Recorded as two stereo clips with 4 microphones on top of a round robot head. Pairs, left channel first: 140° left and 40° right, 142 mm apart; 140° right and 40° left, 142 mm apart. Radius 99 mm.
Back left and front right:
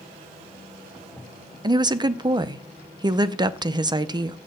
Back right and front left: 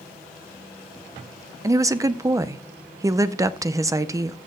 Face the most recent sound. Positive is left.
turn(degrees=-10)